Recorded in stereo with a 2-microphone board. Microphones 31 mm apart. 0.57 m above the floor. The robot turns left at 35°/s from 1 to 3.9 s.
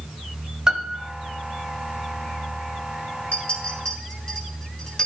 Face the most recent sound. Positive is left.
turn(degrees=25)  # may be behind; listen again after turning